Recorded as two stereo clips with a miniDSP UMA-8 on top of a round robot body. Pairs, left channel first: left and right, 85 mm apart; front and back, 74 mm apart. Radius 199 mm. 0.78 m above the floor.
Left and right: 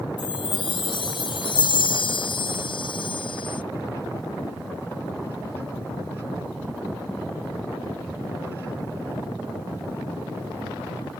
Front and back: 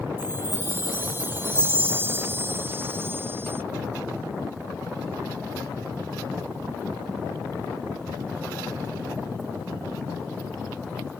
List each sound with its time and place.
0.2 s a chime: 115° left